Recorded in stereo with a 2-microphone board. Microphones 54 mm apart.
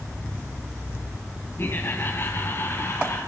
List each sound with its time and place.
1.6 s laughter: 40° left (ahead or behind), 2.5 m; by 3.2 s 45° left (ahead or behind), 3 m